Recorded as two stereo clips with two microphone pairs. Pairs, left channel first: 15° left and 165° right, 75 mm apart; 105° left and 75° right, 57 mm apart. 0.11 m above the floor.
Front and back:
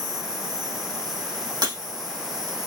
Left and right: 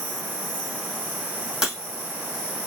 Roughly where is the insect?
Behind.